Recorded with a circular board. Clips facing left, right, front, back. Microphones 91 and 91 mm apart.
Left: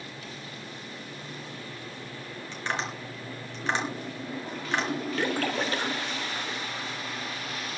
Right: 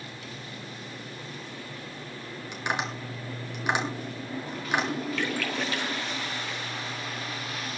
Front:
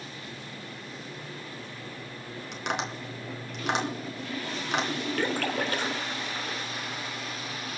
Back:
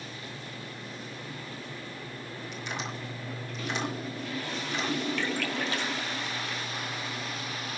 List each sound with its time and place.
2.5 s tapping: 15° right, 4 m
5.2 s a splash: 40° left, 2.5 m